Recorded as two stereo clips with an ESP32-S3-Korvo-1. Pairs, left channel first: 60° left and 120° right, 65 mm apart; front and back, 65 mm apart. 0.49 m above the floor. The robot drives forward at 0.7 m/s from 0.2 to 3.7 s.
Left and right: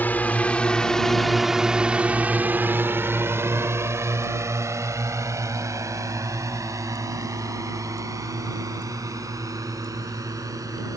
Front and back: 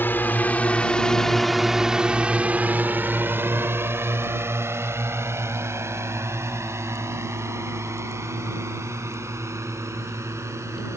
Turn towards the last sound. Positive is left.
turn(degrees=-140)